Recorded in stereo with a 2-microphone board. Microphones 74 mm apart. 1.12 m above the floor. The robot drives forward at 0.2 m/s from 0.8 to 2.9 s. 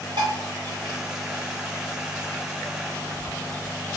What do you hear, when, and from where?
0.2 s dishes clattering: 80° right, 1.5 m